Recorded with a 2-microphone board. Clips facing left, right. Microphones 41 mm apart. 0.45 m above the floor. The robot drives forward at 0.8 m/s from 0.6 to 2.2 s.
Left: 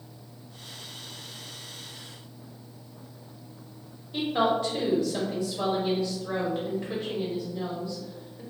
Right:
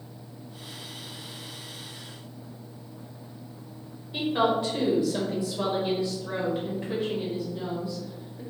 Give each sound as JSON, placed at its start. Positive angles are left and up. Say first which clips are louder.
{"t": 4.1, "sound": "a woman speaking", "louder": "right 1 dB", "side_deg": -10, "distance_m": 1.8}